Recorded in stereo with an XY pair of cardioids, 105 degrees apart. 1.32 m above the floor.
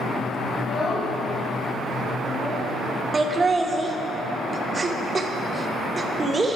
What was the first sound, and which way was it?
A child speaking, 55° left.